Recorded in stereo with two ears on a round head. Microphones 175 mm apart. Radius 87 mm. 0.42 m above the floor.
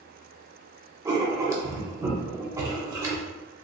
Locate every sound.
1.1 s writing: 15° right (ahead or behind), 0.5 m